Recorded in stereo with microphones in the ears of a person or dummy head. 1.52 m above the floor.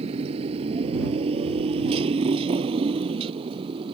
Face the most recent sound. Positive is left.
turn(degrees=-30)  # may be behind; listen again after turning